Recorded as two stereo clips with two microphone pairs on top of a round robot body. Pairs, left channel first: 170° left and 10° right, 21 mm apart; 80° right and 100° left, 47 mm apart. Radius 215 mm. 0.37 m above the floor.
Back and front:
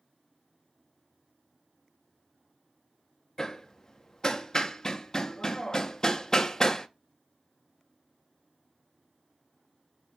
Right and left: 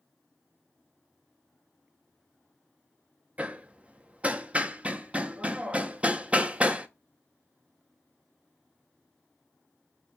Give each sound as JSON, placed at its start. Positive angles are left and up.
{"t": 3.4, "sound": "hammering", "azimuth_deg": 130, "distance_m": 0.5}